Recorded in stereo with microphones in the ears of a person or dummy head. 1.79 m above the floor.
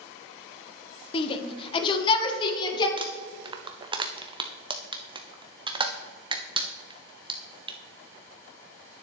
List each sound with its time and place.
1.1 s a shout: 30° left (ahead or behind), 1.0 m; by 2.9 s 35° left (ahead or behind), 2.5 m
3.0 s crumpling: 30° right (ahead or behind), 0.8 m